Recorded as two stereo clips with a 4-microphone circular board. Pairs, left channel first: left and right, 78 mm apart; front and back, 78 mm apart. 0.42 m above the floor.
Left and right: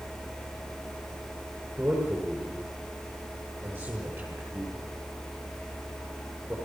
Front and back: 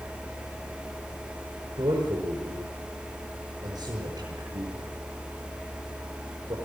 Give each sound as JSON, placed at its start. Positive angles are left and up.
{"t": 1.8, "sound": "a man speaking", "azimuth_deg": -165, "distance_m": 7.0}